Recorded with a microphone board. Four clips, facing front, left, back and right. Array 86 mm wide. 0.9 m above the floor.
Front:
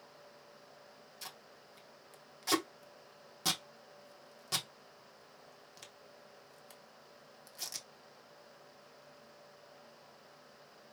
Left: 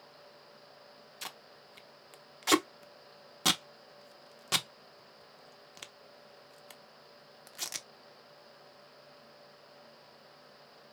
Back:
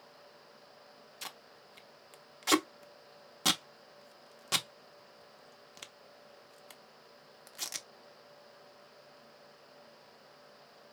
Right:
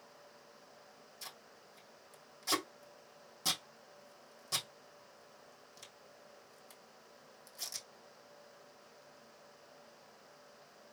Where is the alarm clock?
No alarm clock in this recording.